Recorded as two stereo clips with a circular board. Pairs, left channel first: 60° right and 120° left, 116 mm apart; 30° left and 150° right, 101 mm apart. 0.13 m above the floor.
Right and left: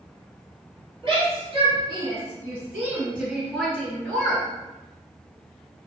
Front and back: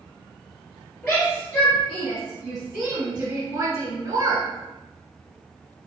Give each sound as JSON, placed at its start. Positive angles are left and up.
{"t": 1.0, "sound": "a shout", "azimuth_deg": 90, "distance_m": 1.7}